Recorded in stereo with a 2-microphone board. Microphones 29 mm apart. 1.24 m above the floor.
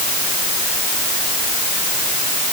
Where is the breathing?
No breathing in this recording.